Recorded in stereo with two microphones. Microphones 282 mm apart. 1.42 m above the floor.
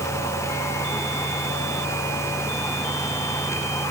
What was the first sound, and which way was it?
Only background noise.